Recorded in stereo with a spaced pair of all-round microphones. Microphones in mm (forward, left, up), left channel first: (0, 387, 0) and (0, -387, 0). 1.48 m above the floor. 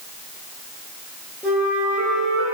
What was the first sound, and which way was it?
A flute, centre (ahead or behind).